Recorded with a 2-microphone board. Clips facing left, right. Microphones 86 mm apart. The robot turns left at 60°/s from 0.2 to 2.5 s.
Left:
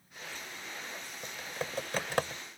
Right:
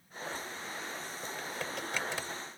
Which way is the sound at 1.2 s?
Centre (ahead or behind).